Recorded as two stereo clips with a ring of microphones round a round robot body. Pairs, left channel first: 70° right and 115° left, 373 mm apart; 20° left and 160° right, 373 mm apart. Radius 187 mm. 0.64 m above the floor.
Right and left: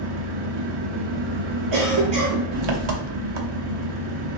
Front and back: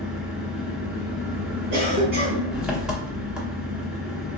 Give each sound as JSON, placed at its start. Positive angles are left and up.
{"t": 0.0, "sound": "an engine running", "azimuth_deg": 115, "distance_m": 1.0}
{"t": 1.7, "sound": "a cough", "azimuth_deg": 140, "distance_m": 1.5}